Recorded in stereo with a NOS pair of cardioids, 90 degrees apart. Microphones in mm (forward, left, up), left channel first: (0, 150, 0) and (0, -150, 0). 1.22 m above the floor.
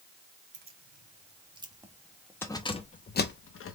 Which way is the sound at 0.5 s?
35° right.